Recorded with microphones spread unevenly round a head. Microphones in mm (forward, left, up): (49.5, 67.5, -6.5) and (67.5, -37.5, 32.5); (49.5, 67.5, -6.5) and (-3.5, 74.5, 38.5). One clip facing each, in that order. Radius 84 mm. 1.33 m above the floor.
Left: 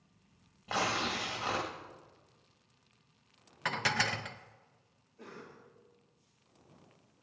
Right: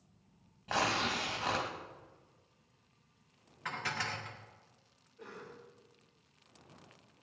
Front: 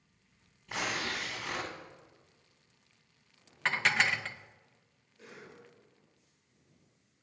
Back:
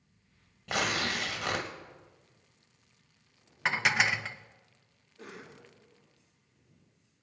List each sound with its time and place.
0.7 s tearing paper: 175° right, 2 m
3.6 s dishes clattering: 140° left, 0.7 m
5.2 s a cough: 170° left, 2.5 m